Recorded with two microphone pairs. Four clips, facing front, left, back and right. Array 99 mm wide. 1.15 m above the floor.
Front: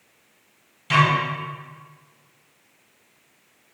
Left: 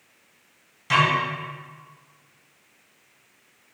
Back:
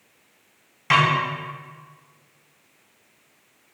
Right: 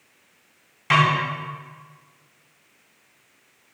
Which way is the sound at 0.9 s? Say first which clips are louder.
Right 2 dB, even; 140° right.